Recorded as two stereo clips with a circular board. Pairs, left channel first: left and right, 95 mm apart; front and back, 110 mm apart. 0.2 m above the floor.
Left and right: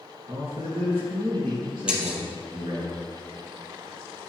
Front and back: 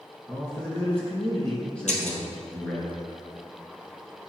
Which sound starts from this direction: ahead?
Breaking glass, at 1.9 s.